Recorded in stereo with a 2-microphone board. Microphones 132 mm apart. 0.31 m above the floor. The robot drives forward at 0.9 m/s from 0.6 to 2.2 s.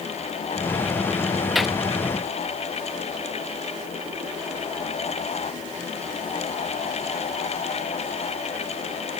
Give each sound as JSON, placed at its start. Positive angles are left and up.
{"t": 1.6, "sound": "a gunshot", "side_deg": 0}